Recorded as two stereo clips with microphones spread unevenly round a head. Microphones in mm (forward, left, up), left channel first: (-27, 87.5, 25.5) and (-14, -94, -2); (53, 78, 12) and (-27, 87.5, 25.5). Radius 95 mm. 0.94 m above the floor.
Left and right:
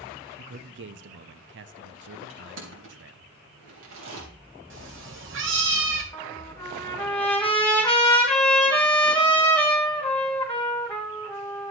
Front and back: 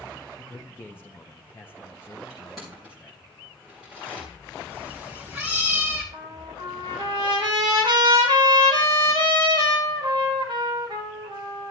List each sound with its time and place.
0.4 s a man speaking: 75° right, 0.8 m
2.3 s crushing: 95° right, 3.5 m
4.7 s a cat meowing: 100° right, 2.5 m
6.1 s a trumpet: straight behind, 3 m